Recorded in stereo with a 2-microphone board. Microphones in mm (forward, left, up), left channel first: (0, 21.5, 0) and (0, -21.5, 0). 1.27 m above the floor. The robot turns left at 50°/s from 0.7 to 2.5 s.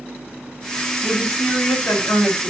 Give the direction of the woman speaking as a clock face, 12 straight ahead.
7 o'clock.